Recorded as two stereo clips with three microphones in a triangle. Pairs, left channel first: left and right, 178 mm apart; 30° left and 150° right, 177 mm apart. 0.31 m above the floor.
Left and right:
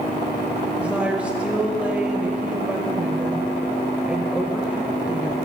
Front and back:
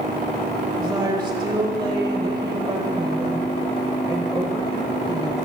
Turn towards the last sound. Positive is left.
turn(degrees=-165)